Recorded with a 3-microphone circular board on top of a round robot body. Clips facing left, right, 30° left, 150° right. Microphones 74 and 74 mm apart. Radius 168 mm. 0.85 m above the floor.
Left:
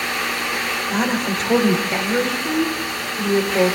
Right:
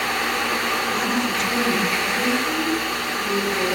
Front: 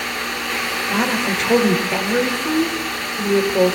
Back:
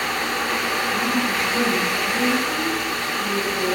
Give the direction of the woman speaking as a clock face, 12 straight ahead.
11 o'clock.